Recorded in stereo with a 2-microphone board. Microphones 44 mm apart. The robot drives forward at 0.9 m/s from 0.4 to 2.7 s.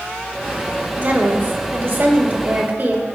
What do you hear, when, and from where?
1.0 s a woman speaking: 45° right (ahead or behind), 2 m; by 3.0 s 50° right (ahead or behind), 2 m